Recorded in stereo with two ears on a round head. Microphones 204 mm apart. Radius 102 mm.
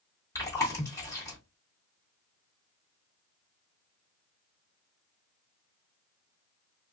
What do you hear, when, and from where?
0.3 s chewing: 15° left (ahead or behind), 1.6 m